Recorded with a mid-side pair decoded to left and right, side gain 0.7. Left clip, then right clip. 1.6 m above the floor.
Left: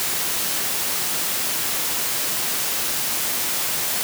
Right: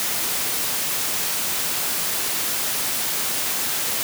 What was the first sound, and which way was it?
Only background noise.